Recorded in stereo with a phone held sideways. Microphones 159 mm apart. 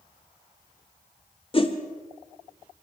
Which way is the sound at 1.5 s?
35° left (ahead or behind).